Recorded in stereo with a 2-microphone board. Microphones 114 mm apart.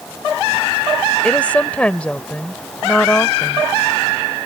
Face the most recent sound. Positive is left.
turn(degrees=10)  # may be behind; listen again after turning